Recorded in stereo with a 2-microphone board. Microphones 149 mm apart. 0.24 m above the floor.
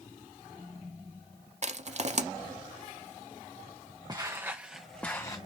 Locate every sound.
1.6 s crushing: 50° right (ahead or behind), 0.6 m
4.1 s footsteps: 25° right (ahead or behind), 1.4 m; by 5.4 s 25° left (ahead or behind), 1.2 m